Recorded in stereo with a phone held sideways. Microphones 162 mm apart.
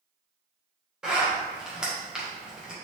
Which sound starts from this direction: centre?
A zipper, at 1.0 s.